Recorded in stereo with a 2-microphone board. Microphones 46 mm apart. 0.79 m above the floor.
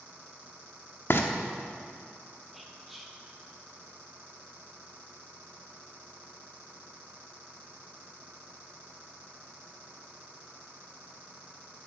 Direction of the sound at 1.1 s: 55° left (ahead or behind).